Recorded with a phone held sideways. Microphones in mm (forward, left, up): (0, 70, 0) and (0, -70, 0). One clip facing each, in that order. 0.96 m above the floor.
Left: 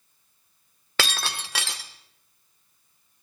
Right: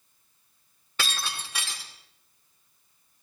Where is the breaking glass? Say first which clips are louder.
Left 4 dB; 75° left (ahead or behind), 1.4 m.